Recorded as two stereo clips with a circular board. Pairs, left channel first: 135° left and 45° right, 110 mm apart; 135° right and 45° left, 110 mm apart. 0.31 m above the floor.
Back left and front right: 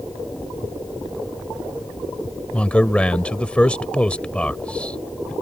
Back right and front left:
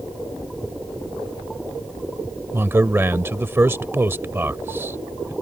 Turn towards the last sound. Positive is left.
turn(degrees=75)